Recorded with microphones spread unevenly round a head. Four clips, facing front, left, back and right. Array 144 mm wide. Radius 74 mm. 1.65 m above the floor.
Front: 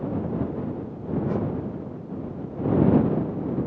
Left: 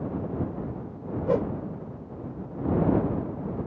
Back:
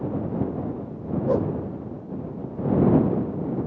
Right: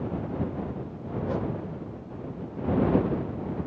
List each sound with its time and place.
1.3 s a whoosh: 145° left